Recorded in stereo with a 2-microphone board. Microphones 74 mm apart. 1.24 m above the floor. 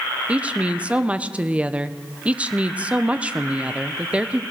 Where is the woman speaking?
15° right (ahead or behind), 0.7 m.